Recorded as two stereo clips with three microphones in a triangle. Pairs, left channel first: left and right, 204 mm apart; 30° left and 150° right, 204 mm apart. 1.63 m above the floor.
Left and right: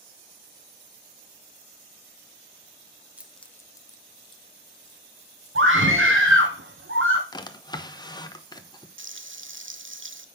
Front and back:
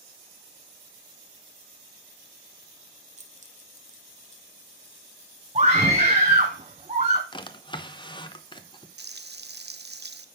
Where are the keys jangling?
170° right, 0.6 m; by 6.5 s 150° left, 3.5 m.